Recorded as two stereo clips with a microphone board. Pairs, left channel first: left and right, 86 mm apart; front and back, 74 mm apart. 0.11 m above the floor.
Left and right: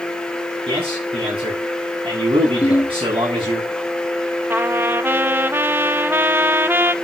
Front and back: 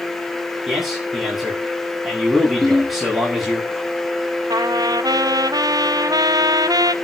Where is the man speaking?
95° right, 9.5 m.